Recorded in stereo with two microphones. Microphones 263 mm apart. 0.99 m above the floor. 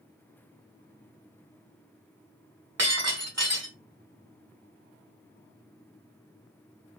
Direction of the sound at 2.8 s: 70° right (ahead or behind).